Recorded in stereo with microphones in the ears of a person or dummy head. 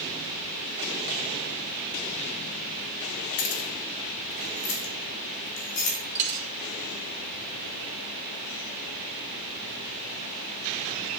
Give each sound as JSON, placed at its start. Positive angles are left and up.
{"t": 3.4, "sound": "keys jangling", "side_deg": 40, "distance_m": 0.9}
{"t": 6.2, "sound": "a dropped coin", "side_deg": -35, "distance_m": 1.0}